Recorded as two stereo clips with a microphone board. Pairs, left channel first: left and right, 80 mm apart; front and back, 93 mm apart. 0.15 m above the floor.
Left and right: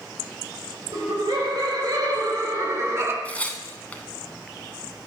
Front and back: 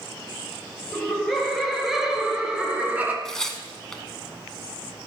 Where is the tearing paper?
70° left, 0.9 m.